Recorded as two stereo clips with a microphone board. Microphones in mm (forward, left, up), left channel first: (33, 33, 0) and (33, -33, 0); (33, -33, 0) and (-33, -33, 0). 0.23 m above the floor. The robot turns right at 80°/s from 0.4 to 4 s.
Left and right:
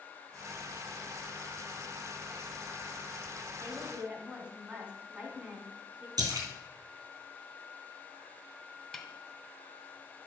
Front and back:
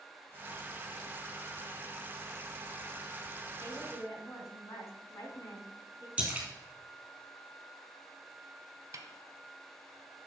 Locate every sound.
3.6 s a woman speaking: 50° right, 2 m; by 6.1 s 20° right, 2 m
6.2 s a splash: 105° right, 3 m
8.9 s a snare drum: 175° left, 1.1 m